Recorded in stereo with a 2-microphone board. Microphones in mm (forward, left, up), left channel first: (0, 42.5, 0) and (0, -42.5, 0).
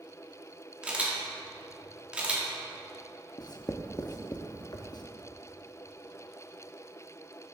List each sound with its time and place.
0.8 s a camera shutter: 15° right (ahead or behind), 1.6 m
3.4 s writing: 50° left (ahead or behind), 0.7 m